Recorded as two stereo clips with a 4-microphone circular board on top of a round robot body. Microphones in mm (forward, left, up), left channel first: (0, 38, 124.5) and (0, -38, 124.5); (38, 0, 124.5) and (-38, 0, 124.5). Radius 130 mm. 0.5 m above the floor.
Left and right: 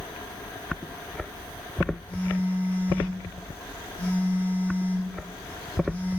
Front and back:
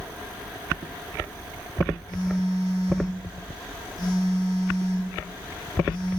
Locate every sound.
2.1 s a phone buzzing: 20° left, 3 m